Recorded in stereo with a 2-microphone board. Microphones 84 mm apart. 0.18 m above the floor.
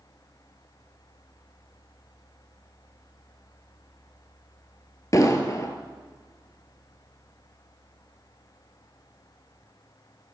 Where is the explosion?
40° left (ahead or behind), 1.1 m.